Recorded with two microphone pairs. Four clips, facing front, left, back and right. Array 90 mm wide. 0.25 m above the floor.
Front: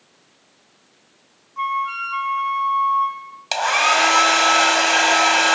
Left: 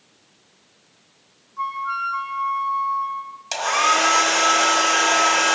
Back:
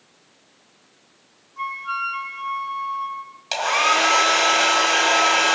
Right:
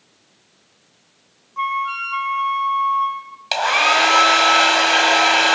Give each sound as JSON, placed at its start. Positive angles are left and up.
{"t": 1.6, "sound": "a flute", "azimuth_deg": -65, "distance_m": 1.0}
{"t": 3.5, "sound": "a hair dryer", "azimuth_deg": -55, "distance_m": 1.6}